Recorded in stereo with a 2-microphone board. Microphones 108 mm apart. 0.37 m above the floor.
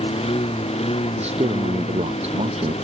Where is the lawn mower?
65° left (ahead or behind); by 2.8 s 75° left (ahead or behind).